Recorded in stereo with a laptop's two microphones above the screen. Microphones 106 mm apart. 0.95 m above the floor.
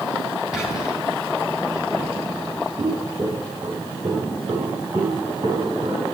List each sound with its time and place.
0.5 s whispering: 10° right (ahead or behind), 4.5 m
2.8 s footsteps: 50° right (ahead or behind), 3 m